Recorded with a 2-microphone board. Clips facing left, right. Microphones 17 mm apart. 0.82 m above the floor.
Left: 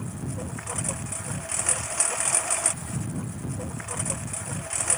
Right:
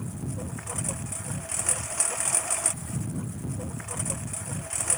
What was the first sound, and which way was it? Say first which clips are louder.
A lawn mower: left 1 dB; 15° left (ahead or behind).